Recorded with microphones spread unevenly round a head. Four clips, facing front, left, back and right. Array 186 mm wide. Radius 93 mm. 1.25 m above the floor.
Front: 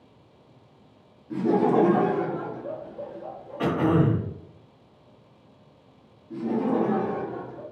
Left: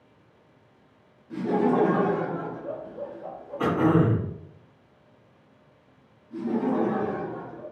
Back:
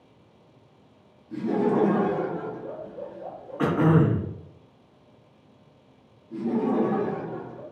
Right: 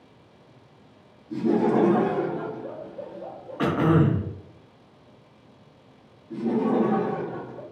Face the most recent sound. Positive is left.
turn(degrees=-65)